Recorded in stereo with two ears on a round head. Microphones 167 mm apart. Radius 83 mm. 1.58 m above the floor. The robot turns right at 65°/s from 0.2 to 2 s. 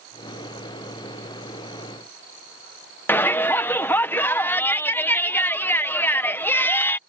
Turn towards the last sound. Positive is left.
turn(degrees=10)  # may be behind; listen again after turning